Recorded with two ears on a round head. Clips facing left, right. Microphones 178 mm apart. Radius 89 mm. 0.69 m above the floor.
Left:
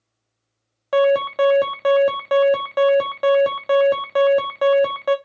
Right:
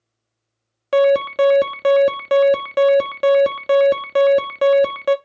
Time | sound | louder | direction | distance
0.9 | an alarm | right 2 dB | 30° right (ahead or behind) | 0.7 m